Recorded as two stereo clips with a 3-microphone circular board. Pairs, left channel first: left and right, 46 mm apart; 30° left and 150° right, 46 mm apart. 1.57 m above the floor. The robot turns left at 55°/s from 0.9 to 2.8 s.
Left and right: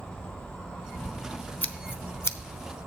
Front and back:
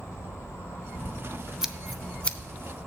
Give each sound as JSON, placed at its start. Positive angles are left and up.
{"t": 0.0, "sound": "an insect", "azimuth_deg": 20, "distance_m": 3.5}
{"t": 1.6, "sound": "scissors", "azimuth_deg": 130, "distance_m": 0.6}